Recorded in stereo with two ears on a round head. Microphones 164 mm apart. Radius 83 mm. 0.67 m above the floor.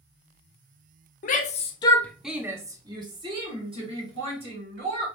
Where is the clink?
I don't hear a clink.